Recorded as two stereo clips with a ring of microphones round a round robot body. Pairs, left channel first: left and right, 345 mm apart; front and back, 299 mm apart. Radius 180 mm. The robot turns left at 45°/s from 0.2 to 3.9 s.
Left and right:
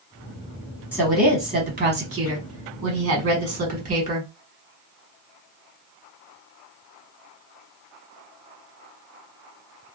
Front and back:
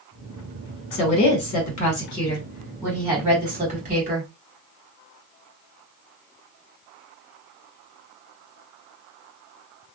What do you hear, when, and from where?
0.9 s a woman speaking: 10° right, 1.2 m; by 4.3 s 145° right, 1.2 m